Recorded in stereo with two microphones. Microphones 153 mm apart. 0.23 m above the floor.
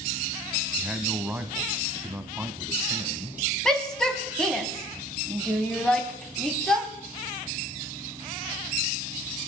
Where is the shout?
5° left (ahead or behind), 1.8 m.